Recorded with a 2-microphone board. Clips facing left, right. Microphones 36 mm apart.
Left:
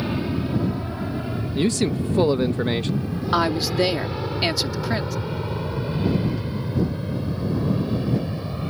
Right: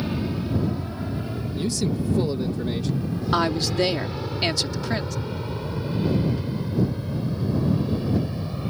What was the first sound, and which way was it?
An aircraft, 20° left (ahead or behind).